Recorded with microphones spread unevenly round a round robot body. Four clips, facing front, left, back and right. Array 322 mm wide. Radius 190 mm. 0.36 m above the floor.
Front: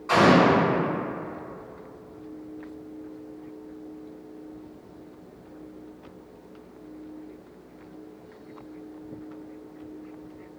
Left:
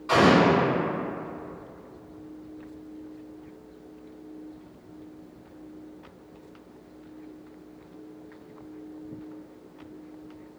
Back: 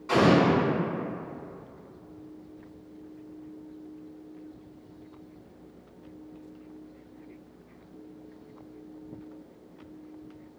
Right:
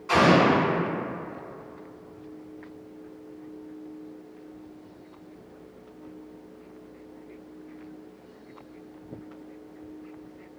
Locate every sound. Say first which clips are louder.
0.1 s an explosion: even, front 3 dB; 75° left, 1.9 m